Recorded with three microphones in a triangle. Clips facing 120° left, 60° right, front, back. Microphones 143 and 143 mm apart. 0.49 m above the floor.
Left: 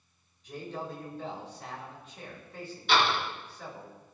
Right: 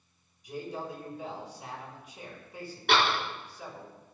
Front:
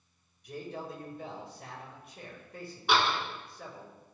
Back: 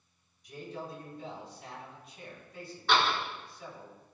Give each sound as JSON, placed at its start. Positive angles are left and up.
{"t": 0.4, "sound": "a man speaking", "azimuth_deg": 15, "distance_m": 6.0}
{"t": 2.9, "sound": "a door slam", "azimuth_deg": -75, "distance_m": 4.5}